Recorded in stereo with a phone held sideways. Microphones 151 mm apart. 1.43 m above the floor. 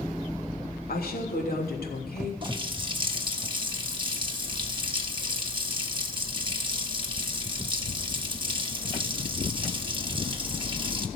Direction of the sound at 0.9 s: 85° left.